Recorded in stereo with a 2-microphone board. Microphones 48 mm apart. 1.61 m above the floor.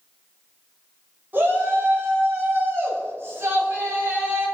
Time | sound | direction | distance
1.3 | a shout | 40° right (ahead or behind) | 7 m